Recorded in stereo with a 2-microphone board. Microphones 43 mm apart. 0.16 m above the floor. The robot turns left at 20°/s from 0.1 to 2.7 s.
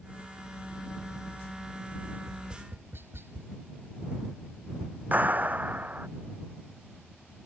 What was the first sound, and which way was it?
Tapping, 65° right (ahead or behind).